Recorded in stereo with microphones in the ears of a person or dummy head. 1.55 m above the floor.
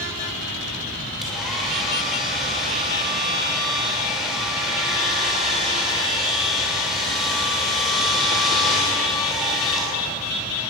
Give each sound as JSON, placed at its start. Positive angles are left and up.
{"t": 1.2, "sound": "a hair dryer", "side_deg": 0, "distance_m": 6.5}